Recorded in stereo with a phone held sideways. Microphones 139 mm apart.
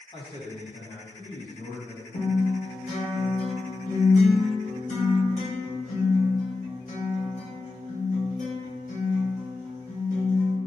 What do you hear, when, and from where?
0.1 s a man speaking: 35° left (ahead or behind), 1.4 m; by 2.0 s 80° left, 1.4 m
2.1 s a guitar: 65° left (ahead or behind), 1.0 m